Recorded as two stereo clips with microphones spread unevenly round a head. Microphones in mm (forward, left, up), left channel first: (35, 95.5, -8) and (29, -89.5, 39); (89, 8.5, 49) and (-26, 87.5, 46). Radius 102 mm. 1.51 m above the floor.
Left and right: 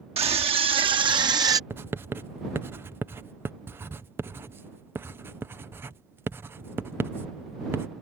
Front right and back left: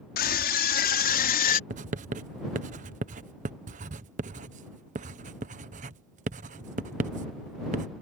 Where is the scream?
35° right; by 1.6 s 20° right.